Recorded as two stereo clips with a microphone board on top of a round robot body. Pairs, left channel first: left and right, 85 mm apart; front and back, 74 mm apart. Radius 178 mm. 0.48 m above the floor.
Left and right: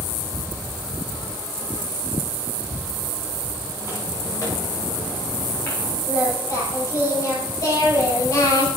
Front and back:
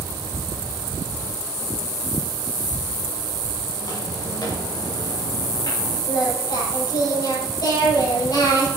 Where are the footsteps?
35° left, 8.5 m; by 6.0 s 20° left, 9 m.